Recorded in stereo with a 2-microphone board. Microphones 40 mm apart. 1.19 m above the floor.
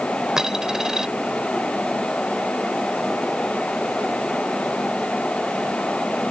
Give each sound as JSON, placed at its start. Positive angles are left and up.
{"t": 0.4, "sound": "a dropped coin", "side_deg": -15}